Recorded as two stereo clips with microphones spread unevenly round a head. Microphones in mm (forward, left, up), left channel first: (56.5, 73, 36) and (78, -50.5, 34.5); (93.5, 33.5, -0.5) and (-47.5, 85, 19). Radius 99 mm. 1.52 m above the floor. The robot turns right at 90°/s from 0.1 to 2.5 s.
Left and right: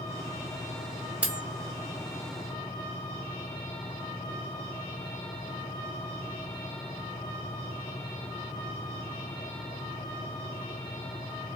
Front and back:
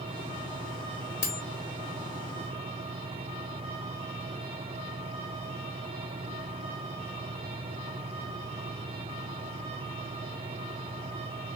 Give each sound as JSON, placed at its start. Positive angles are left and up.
{"t": 1.2, "sound": "cutlery clinking", "azimuth_deg": -5, "distance_m": 1.3}